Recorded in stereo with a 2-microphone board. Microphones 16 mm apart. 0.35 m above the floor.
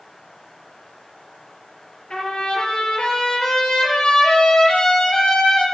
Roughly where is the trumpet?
Left.